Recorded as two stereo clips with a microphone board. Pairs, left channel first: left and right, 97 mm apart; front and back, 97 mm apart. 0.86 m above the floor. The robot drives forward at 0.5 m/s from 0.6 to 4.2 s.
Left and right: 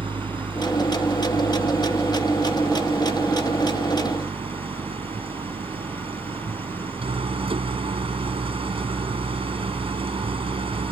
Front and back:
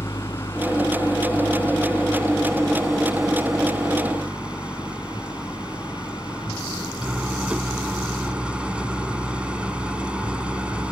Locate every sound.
0.0 s an engine running: 65° right; by 10.9 s 100° right